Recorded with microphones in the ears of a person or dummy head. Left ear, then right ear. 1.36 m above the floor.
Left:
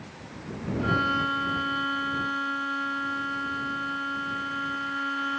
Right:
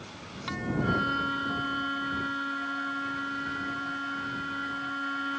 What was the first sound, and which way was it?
A violin, 25° left (ahead or behind).